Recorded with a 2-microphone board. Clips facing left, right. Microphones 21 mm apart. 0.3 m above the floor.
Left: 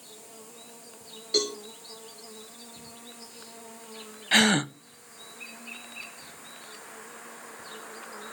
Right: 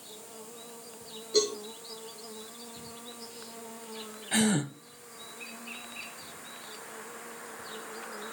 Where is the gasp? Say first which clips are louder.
Left 6 dB; 50° left (ahead or behind), 0.6 m.